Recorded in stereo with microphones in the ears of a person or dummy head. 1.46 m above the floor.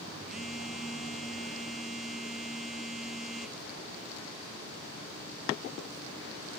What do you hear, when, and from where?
0.3 s a phone buzzing: centre (ahead or behind), 0.7 m